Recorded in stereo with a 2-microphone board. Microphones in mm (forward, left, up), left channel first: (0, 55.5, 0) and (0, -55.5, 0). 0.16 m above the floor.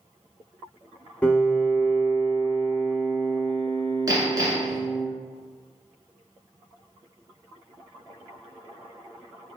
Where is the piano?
10° left (ahead or behind), 0.6 m.